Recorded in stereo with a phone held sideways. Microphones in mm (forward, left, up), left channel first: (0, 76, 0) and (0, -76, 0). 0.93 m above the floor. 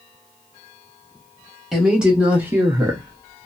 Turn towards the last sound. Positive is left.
turn(degrees=-35)  # may be behind; listen again after turning